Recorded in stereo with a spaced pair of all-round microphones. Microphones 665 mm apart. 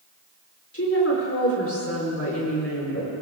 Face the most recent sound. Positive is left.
turn(degrees=20)  # may be behind; listen again after turning